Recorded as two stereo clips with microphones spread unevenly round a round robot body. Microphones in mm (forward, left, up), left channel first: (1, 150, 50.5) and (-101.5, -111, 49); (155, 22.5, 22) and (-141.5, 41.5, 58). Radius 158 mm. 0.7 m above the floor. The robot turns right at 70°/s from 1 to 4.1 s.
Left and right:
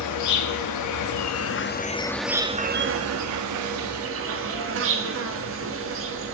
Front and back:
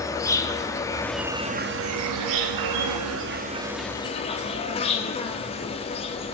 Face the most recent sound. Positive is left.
turn(degrees=-70)